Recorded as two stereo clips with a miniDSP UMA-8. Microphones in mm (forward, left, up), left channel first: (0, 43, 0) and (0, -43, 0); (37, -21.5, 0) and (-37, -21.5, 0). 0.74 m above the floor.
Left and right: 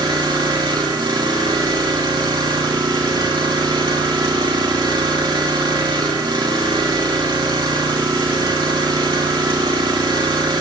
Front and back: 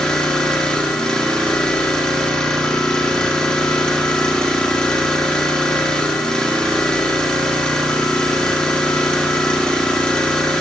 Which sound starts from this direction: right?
An engine running, at 0.0 s.